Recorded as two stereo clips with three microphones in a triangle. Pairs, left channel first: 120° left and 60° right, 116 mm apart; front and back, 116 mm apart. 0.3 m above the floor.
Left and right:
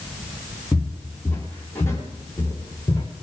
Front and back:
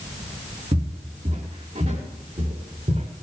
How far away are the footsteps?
About 3.5 m.